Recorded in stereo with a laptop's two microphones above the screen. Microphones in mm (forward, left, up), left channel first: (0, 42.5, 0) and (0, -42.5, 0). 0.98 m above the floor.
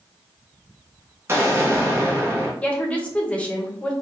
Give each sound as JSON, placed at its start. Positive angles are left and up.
{"t": 1.3, "sound": "an explosion", "side_deg": -30, "distance_m": 0.6}
{"t": 2.6, "sound": "a woman speaking", "side_deg": 15, "distance_m": 0.6}